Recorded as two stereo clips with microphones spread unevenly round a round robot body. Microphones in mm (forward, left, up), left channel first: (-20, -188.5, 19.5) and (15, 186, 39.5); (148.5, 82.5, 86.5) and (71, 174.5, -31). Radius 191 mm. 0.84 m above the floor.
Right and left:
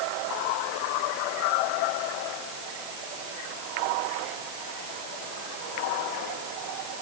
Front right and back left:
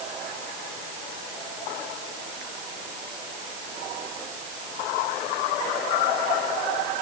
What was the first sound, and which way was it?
Only background noise.